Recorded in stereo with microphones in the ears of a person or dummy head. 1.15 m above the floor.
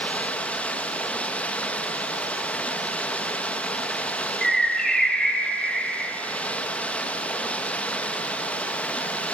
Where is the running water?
10° left (ahead or behind), 1.3 m.